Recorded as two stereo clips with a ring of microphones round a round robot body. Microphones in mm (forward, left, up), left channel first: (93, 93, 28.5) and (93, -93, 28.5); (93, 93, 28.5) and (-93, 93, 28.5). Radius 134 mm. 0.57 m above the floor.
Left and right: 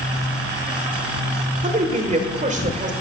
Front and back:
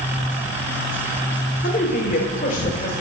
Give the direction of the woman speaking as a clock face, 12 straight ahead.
2 o'clock.